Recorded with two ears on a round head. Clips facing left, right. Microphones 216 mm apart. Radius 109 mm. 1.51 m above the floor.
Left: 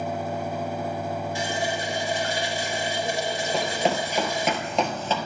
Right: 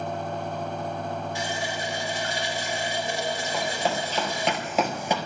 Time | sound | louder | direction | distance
1.4 | a running tap | left 3 dB | 70° left (ahead or behind) | 2.5 m
3.5 | running footsteps | left 4 dB | 25° left (ahead or behind) | 1.6 m